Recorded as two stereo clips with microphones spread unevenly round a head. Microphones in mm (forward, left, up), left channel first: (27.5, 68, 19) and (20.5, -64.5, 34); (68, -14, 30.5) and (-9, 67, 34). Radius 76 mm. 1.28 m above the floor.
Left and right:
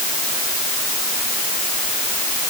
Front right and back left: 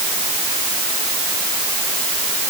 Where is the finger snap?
No finger snap in this recording.